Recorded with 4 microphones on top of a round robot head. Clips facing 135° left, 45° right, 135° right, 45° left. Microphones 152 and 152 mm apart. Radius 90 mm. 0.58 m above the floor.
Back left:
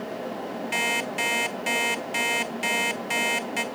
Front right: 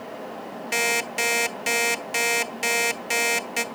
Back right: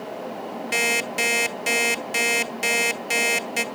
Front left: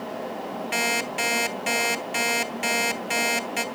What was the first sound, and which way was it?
An alarm clock, 90° right.